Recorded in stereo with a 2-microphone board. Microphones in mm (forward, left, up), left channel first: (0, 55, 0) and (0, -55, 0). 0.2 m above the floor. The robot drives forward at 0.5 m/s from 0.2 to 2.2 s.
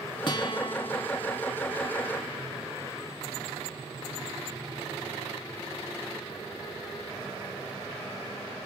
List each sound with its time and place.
0.3 s a guitar: 45° left (ahead or behind), 0.9 m